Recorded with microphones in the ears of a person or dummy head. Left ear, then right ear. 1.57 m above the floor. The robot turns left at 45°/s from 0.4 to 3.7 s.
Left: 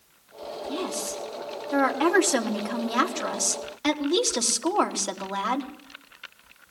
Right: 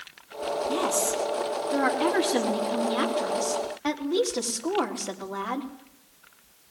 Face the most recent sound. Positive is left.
turn(degrees=80)